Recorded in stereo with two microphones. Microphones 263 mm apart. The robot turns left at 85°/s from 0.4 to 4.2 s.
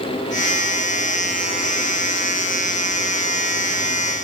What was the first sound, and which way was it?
Only background noise.